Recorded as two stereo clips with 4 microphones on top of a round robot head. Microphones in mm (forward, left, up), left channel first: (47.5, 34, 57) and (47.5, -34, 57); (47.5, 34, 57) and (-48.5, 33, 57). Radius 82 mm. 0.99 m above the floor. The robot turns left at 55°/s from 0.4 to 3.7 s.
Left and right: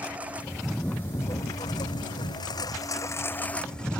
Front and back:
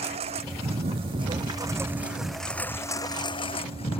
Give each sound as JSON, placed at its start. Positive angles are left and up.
{"t": 0.0, "sound": "a lawn mower", "azimuth_deg": -165}